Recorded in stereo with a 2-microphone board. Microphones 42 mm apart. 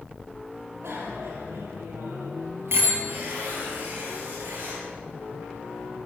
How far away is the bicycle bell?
About 7 m.